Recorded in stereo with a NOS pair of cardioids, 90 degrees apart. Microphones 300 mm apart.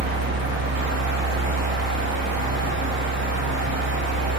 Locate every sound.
0.0 s a fan: 40° right, 1.0 m